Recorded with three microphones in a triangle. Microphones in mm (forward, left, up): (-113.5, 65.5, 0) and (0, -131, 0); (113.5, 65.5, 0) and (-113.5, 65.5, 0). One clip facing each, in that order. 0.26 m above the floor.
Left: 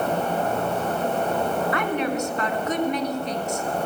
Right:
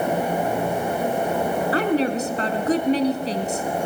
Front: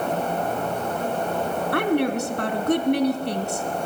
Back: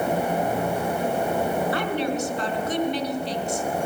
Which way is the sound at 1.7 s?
10° right.